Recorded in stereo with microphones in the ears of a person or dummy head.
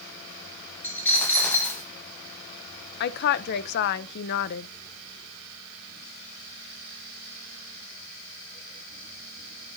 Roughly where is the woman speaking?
Left.